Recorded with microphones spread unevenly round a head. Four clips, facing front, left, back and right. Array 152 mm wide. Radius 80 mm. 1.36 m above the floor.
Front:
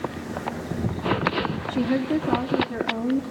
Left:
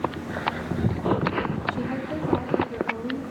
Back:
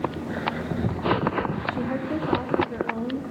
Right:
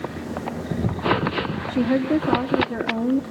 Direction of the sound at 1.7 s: 65° right.